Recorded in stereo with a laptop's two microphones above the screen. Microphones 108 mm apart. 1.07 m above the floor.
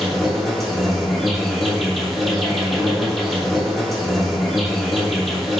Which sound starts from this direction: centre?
An insect, at 0.0 s.